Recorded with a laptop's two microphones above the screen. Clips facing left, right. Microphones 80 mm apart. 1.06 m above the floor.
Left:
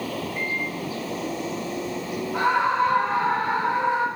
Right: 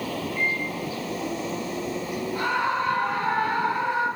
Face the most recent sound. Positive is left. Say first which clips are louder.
# left 5 dB
turn(degrees=85)